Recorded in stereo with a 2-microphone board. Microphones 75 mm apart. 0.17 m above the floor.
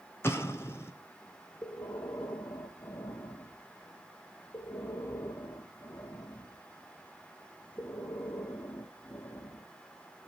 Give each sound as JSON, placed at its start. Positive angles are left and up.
{"t": 0.2, "sound": "an explosion", "side_deg": 35, "distance_m": 2.0}
{"t": 1.6, "sound": "breathing", "side_deg": 50, "distance_m": 2.5}